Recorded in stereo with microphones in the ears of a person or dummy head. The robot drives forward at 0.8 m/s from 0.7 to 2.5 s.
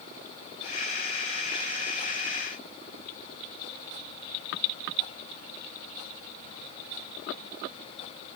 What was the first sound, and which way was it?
Only background noise.